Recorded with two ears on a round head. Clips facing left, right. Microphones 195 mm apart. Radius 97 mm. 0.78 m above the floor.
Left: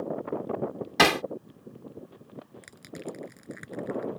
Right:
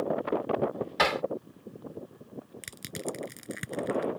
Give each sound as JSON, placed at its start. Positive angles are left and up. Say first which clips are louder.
{"t": 1.0, "sound": "hammering", "louder": "left 6 dB", "side_deg": 60}
{"t": 2.6, "sound": "crushing", "louder": "right 2 dB", "side_deg": -40}